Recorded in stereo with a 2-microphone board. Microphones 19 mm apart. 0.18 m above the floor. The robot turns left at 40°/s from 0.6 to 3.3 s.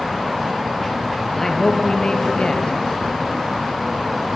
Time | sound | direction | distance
1.4 | a man speaking | 160° left | 3 m